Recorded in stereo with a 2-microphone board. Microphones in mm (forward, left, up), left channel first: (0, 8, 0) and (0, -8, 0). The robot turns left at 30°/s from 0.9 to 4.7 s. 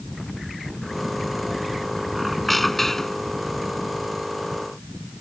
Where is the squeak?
170° right; by 3.4 s 155° left.